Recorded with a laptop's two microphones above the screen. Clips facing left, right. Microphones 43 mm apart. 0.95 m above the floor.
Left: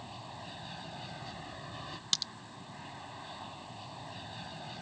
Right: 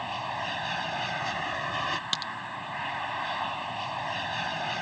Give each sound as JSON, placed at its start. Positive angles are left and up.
{"t": 0.0, "sound": "an aircraft", "side_deg": -80}
{"t": 2.1, "sound": "a crack", "side_deg": -25}